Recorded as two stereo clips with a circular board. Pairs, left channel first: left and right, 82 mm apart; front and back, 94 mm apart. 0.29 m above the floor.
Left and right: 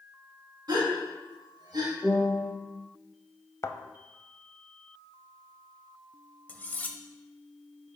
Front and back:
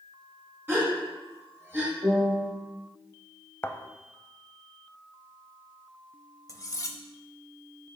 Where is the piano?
160° right, 2.5 m.